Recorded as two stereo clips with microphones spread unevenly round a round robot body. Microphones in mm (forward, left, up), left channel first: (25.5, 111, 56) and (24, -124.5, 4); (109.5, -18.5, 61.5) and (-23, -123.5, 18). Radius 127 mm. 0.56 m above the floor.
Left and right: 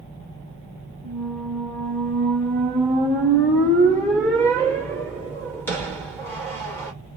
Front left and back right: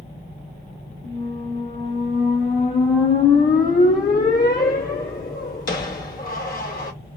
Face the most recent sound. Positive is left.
turn(degrees=5)